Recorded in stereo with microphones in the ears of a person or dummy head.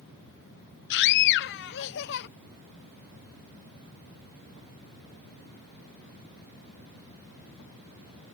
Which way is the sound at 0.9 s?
55° left (ahead or behind).